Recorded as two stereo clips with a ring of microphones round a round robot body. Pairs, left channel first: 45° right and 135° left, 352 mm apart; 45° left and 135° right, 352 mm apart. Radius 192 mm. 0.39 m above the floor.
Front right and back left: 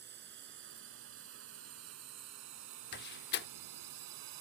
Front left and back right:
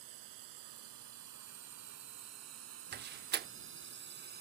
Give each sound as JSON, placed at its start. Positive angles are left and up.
{"t": 0.0, "sound": "a drone", "azimuth_deg": -165}
{"t": 2.9, "sound": "a door slam", "azimuth_deg": -90}